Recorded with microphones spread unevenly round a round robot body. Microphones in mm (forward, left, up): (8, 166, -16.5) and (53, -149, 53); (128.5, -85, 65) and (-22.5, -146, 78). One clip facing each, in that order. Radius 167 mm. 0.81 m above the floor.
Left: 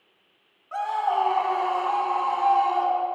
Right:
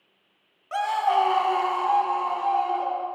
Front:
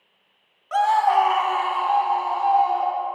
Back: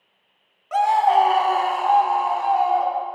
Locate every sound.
0.7 s a scream: 75° right, 0.9 m; by 3.0 s 170° left, 1.5 m